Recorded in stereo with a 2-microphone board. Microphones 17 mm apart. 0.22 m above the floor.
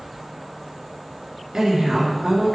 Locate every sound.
1.5 s a woman speaking: 40° right (ahead or behind), 2.5 m